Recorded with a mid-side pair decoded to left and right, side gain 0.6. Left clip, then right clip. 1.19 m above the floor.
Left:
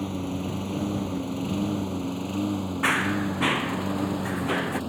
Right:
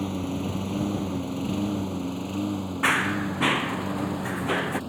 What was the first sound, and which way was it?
A lawn mower, 5° right.